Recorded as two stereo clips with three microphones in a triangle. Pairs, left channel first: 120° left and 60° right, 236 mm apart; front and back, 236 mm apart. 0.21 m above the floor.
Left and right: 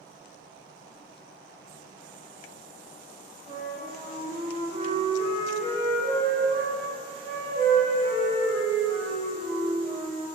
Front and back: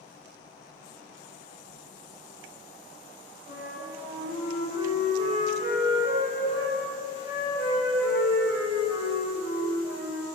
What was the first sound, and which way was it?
A flute, 120° right.